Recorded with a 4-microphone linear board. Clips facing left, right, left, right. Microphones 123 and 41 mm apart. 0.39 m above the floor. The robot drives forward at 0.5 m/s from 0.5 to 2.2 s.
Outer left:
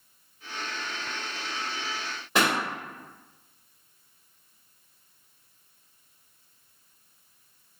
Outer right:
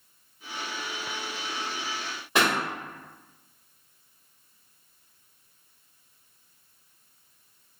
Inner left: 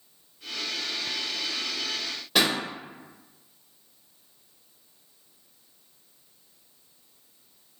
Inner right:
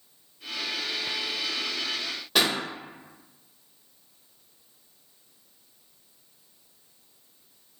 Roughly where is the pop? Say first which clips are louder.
Even, inner left 1 dB; centre.